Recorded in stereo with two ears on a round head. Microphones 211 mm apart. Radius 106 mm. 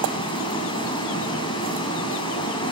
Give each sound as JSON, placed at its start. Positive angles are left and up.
{"t": 0.0, "sound": "running water", "side_deg": 25, "distance_m": 6.0}